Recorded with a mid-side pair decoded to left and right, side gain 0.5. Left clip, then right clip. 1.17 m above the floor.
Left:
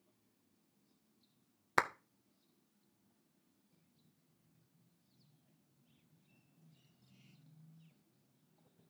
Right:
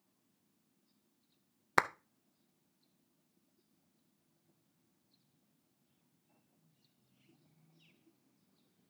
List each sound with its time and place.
1.8 s a clap: 20° right, 0.7 m